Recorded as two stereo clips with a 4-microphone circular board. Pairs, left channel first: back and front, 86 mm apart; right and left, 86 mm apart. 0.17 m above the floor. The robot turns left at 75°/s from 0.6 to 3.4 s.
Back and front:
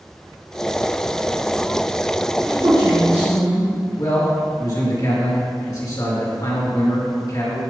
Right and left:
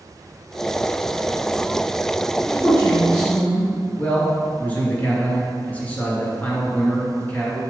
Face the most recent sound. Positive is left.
turn(degrees=-155)